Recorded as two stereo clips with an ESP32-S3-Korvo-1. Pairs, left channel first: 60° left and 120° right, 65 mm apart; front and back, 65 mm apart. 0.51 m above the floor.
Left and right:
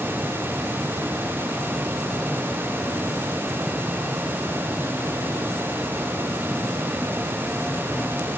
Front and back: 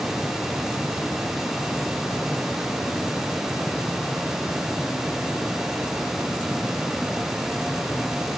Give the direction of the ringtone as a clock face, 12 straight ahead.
No ringtone in this recording.